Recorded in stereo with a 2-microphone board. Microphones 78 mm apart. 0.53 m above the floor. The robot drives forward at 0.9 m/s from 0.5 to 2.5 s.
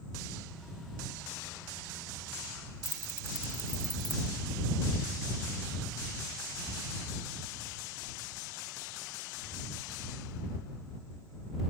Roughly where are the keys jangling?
Left.